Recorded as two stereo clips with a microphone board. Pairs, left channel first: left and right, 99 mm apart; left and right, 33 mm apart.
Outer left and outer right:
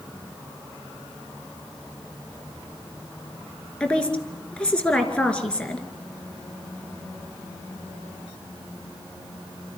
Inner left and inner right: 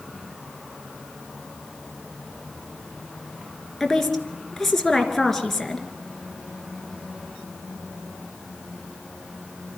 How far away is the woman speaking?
About 2.5 m.